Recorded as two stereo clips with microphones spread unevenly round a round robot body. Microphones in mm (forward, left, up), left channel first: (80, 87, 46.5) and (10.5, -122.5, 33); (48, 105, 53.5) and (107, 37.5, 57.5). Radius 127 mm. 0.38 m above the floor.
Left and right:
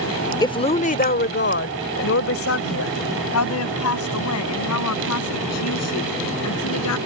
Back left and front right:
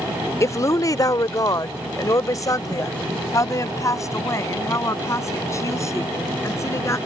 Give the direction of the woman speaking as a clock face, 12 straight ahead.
7 o'clock.